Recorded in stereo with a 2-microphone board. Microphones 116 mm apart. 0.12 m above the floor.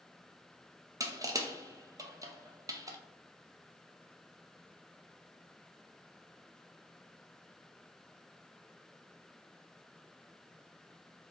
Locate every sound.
1.0 s crushing: 30° right (ahead or behind), 0.5 m